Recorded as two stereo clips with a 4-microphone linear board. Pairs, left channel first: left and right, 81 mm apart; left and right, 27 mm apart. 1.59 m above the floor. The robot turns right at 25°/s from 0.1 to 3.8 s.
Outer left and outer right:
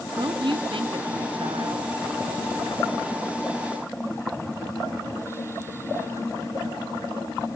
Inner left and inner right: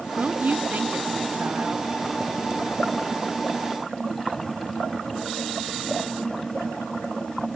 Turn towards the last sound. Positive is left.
turn(degrees=-30)